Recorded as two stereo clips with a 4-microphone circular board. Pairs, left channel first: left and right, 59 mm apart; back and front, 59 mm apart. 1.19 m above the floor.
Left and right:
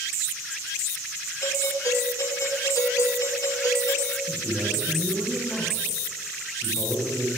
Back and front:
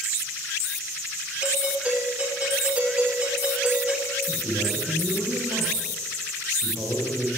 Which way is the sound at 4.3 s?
10° right.